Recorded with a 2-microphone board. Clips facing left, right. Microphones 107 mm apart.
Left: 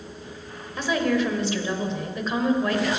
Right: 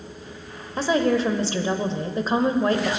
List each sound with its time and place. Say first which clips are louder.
0.8 s a woman speaking: right 3 dB; 35° right (ahead or behind), 1.2 m